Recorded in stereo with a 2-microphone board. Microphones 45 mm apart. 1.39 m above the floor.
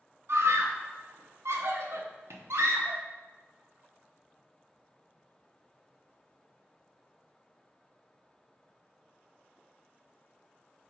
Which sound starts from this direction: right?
A scream, at 0.3 s.